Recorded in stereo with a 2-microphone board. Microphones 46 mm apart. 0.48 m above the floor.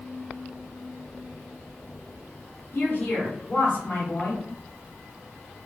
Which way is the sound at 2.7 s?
40° left (ahead or behind).